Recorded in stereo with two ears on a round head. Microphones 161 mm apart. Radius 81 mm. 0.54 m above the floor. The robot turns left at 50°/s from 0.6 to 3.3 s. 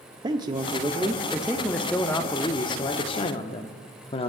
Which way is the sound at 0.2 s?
130° right.